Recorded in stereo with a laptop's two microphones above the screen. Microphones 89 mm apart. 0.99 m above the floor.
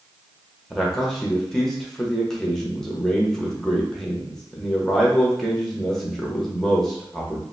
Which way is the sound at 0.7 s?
5° left (ahead or behind).